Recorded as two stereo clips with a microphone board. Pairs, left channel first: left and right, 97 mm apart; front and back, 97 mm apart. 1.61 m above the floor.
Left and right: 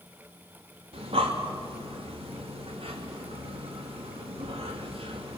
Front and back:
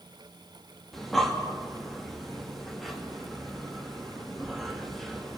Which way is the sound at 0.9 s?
90° right.